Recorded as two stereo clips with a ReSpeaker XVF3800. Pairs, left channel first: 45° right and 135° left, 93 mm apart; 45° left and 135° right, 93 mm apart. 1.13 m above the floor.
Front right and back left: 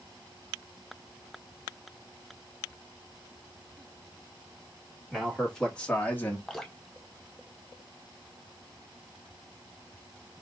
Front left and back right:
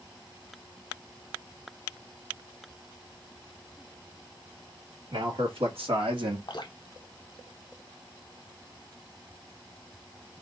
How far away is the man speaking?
About 2 m.